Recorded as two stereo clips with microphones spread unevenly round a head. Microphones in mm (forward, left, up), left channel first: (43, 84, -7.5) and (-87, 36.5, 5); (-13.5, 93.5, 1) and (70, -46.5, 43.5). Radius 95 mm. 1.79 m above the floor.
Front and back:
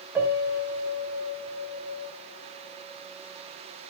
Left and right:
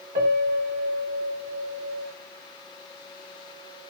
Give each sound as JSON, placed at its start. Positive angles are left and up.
{"t": 0.1, "sound": "a piano", "azimuth_deg": -85, "distance_m": 3.0}